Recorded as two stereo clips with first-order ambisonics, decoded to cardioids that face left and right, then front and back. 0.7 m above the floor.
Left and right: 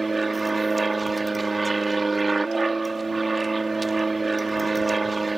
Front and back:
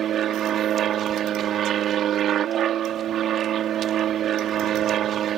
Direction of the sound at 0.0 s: 165° right.